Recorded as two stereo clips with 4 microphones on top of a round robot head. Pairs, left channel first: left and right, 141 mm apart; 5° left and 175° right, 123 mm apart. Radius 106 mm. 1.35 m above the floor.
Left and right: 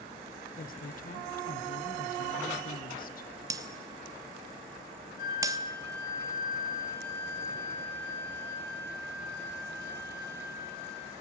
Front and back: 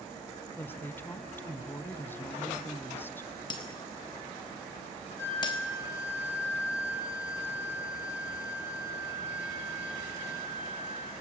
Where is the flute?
75° left, 9 m.